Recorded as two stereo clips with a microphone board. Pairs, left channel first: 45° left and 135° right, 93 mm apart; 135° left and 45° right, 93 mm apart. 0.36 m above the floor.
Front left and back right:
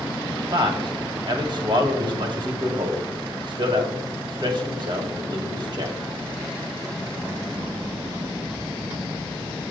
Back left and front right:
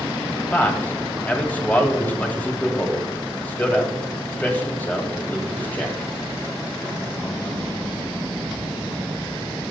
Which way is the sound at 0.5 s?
155° right.